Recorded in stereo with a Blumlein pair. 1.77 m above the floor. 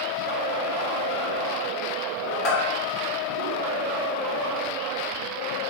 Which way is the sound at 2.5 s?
35° left.